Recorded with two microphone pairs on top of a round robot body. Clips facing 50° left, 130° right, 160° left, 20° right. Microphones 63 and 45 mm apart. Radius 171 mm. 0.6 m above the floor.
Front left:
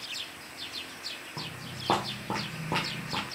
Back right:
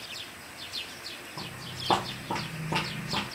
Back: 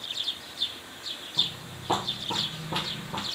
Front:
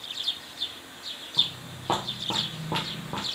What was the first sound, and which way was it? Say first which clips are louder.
Footsteps: back right 1 dB, front 2 dB; 50° left.